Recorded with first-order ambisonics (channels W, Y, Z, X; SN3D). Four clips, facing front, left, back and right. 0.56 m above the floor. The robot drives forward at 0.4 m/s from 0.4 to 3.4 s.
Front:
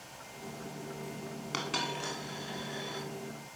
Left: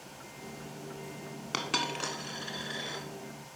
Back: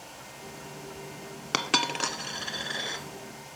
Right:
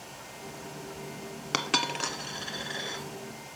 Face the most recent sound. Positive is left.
turn(degrees=-170)